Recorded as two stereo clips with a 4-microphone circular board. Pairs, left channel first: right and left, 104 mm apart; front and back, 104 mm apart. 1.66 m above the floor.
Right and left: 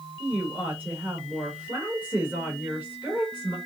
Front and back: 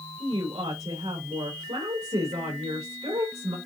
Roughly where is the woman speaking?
Behind.